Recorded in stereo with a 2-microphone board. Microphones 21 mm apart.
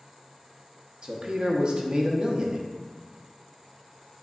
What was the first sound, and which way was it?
A man speaking, 35° right (ahead or behind).